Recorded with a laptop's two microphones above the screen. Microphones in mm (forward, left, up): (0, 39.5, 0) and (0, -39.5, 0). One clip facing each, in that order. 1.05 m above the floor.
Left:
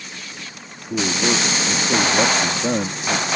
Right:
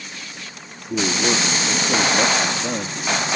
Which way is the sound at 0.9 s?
5° right (ahead or behind).